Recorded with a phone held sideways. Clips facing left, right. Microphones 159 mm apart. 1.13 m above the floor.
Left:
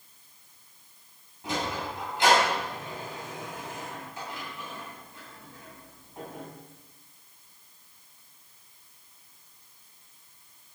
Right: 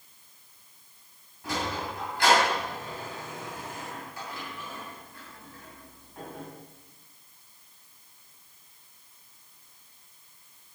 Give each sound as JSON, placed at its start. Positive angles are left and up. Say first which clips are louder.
{"t": 1.4, "sound": "a sliding door", "louder": "even", "side_deg": 20, "distance_m": 7.0}